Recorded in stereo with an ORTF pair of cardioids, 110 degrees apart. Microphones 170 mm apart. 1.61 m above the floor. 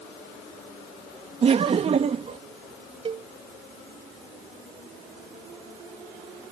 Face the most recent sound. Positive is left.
turn(degrees=-35)